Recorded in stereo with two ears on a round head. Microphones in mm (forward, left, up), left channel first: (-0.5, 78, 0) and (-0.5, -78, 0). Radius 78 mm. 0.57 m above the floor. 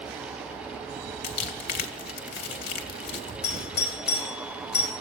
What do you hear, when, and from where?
1.2 s crumpling: 65° left (ahead or behind), 3 m
3.4 s a doorbell: 65° left (ahead or behind), 4.5 m